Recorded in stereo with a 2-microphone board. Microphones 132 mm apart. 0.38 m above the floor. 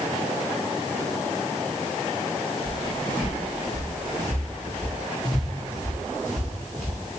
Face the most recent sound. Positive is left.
turn(degrees=-5)  # may be behind; listen again after turning